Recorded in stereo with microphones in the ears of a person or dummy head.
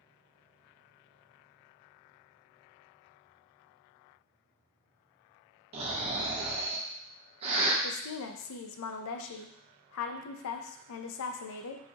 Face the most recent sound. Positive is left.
turn(degrees=75)  # may be behind; listen again after turning